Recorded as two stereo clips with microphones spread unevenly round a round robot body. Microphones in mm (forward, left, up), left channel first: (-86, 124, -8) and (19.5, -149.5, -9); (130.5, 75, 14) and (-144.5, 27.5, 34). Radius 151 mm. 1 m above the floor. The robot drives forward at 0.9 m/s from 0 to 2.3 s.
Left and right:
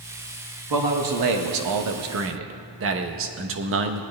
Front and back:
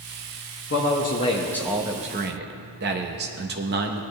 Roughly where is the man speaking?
Ahead right.